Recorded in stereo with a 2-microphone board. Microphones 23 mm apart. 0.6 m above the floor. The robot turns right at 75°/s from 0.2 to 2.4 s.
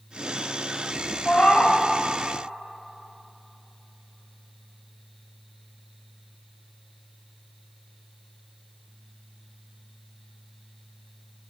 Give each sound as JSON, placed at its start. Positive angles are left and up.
{"t": 1.2, "sound": "a cat meowing", "azimuth_deg": 95, "distance_m": 1.1}